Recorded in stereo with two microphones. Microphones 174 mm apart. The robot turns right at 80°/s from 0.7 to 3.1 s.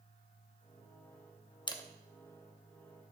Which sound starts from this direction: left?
A camera shutter, at 1.7 s.